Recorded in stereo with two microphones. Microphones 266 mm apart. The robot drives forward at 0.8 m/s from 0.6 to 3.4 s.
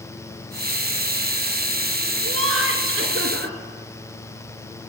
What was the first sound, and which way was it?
Laughter, 55° right (ahead or behind).